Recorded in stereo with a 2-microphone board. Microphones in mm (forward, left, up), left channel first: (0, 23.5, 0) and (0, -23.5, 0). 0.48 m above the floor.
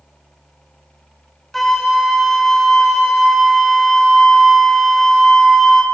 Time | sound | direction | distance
1.5 | a flute | 5° left (ahead or behind) | 0.7 m